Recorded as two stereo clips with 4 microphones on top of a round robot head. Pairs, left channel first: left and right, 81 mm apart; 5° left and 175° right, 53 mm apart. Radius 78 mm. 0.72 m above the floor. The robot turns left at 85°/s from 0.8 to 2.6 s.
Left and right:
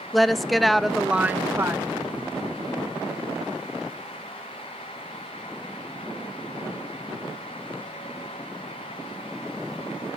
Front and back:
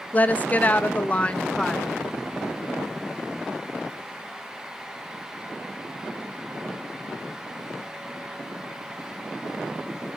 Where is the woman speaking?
Straight ahead, 0.8 m; by 1.9 s 90° right, 0.8 m.